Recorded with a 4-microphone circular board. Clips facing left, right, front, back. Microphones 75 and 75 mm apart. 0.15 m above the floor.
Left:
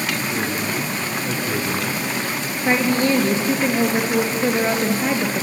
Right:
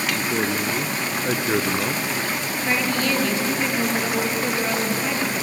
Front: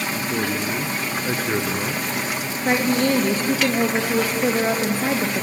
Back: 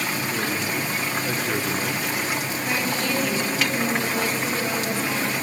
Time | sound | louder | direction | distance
0.1 | a man speaking | even, front 2 dB | 65° right | 1.5 m
2.6 | a woman speaking | left 6 dB, front 8 dB | 35° left | 3 m